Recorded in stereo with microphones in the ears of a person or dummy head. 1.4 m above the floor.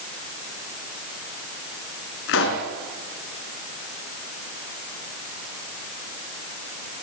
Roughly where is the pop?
Left.